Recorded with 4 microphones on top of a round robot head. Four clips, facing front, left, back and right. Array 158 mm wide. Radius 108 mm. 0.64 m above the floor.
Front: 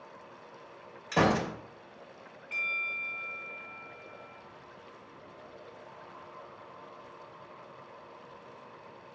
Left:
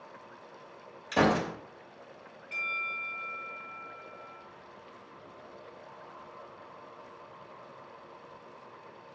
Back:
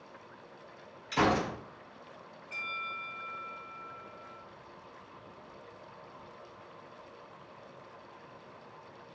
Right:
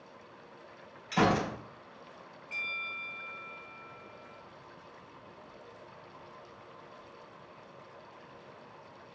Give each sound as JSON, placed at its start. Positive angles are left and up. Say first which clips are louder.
{"t": 1.1, "sound": "a gunshot", "louder": "left 1 dB, front 1 dB", "azimuth_deg": 35, "distance_m": 3.0}
{"t": 2.5, "sound": "a bell", "louder": "left 5 dB, front 1 dB", "azimuth_deg": 15, "distance_m": 3.5}